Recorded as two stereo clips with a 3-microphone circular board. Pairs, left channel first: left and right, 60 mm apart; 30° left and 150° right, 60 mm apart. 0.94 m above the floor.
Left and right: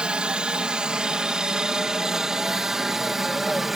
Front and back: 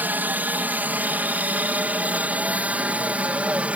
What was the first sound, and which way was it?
A helicopter, 145° right.